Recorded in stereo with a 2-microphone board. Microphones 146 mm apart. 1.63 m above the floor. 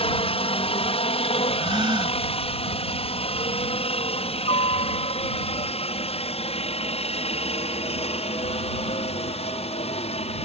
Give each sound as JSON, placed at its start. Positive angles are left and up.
{"t": 0.0, "sound": "a helicopter", "side_deg": 40}
{"t": 1.6, "sound": "a gasp", "side_deg": -35}